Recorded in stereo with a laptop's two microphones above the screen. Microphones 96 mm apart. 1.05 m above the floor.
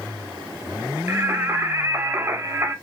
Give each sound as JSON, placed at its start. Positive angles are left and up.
{"t": 1.1, "sound": "singing", "side_deg": -25, "distance_m": 0.7}